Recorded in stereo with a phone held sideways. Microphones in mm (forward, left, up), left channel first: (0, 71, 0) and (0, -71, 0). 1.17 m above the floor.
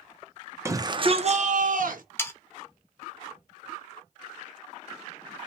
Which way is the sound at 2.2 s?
15° left (ahead or behind).